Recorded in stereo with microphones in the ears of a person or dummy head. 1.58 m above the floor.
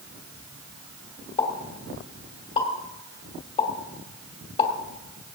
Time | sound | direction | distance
1.4 | a pop | 35° left (ahead or behind) | 2.5 m